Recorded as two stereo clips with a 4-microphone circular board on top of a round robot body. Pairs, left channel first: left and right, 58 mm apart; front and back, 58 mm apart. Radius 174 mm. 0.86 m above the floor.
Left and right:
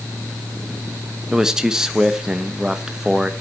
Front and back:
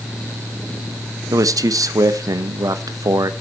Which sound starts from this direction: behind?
A man speaking, at 1.3 s.